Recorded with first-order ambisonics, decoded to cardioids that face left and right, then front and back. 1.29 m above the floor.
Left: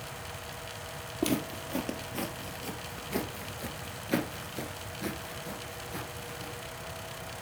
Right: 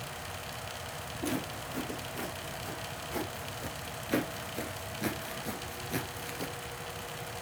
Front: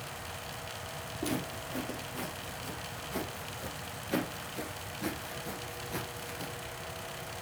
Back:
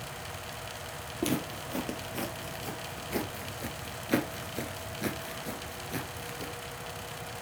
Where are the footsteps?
125° left, 2.5 m; by 6.5 s 105° right, 1.5 m.